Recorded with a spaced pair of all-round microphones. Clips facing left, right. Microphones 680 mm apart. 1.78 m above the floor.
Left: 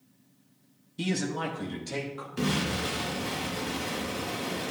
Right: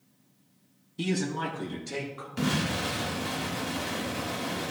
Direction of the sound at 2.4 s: 20° right (ahead or behind).